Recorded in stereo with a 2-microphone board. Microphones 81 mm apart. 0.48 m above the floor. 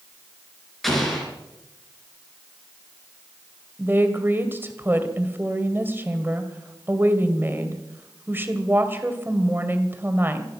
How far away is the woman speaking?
About 2.0 m.